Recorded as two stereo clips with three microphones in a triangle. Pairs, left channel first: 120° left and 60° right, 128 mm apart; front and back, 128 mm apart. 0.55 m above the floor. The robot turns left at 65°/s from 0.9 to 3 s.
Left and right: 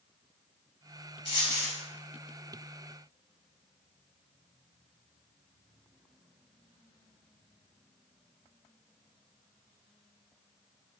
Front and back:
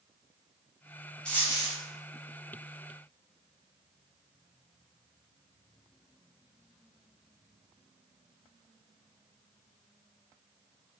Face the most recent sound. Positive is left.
turn(degrees=-35)